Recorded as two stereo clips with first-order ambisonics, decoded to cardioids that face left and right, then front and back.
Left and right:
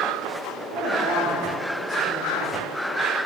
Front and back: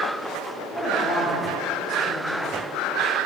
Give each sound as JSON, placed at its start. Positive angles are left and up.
{"t": 0.7, "sound": "a woman speaking", "azimuth_deg": -65, "distance_m": 3.5}